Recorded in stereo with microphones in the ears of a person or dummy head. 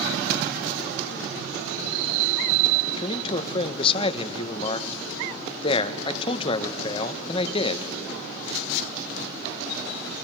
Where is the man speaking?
30° left (ahead or behind), 0.8 m.